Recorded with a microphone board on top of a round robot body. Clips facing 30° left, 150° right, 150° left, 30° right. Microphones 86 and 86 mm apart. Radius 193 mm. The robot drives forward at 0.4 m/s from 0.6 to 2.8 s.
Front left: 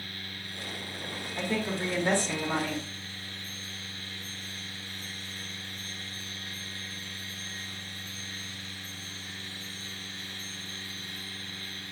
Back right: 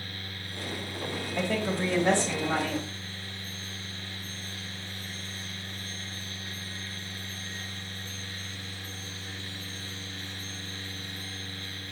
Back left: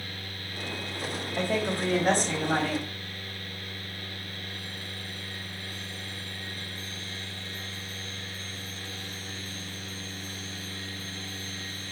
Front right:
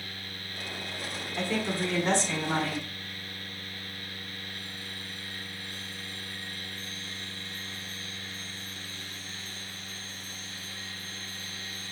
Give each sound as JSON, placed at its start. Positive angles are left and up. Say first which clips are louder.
{"t": 1.4, "sound": "a woman speaking", "louder": "back right 2 dB, back left 2 dB", "azimuth_deg": -165, "distance_m": 3.0}